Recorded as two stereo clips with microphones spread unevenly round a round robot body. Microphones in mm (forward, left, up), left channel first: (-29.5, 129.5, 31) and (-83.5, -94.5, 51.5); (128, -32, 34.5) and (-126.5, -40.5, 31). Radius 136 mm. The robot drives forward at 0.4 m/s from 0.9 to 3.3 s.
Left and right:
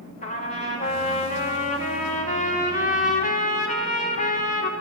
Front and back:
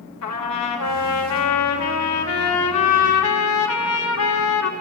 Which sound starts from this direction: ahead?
A trumpet, at 0.2 s.